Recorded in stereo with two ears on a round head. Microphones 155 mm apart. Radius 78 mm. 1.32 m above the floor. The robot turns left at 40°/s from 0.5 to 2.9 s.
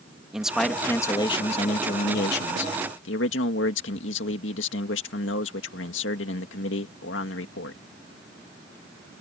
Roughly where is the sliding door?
I don't hear a sliding door.